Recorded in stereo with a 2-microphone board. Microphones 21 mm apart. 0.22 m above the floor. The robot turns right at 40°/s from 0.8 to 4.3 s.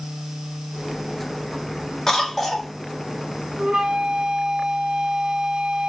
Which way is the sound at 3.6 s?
45° right (ahead or behind).